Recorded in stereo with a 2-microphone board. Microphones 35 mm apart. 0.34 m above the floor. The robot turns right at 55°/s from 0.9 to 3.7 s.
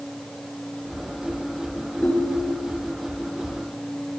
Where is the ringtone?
140° left, 2.5 m; by 2.8 s straight behind, 2.5 m.